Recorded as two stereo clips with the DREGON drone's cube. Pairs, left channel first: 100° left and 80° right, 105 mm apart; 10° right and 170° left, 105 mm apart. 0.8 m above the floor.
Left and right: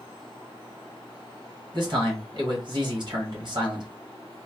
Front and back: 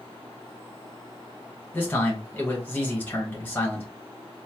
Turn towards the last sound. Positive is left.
turn(degrees=-80)